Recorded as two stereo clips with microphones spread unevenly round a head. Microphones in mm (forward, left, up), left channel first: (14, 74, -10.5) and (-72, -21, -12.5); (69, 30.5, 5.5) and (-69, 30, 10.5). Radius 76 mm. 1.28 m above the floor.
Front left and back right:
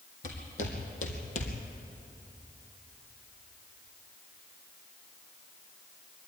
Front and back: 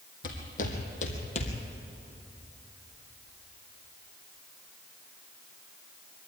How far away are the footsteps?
About 3.5 m.